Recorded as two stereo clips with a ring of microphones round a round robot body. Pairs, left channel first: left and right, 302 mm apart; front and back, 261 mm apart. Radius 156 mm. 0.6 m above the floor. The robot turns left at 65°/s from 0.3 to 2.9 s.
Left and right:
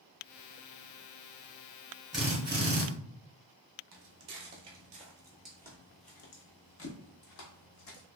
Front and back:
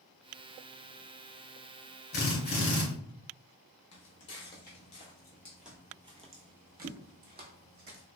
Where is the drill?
Straight ahead, 1.4 m; by 2.8 s 45° right, 1.4 m.